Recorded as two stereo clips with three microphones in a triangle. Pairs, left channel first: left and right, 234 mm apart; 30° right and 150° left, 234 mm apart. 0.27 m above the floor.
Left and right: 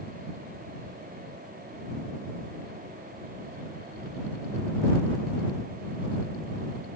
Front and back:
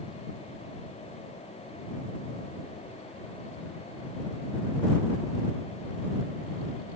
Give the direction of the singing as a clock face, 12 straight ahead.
I don't hear singing.